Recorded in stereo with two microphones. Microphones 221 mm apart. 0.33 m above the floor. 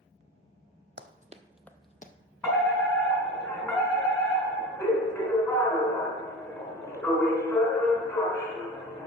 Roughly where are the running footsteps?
Right.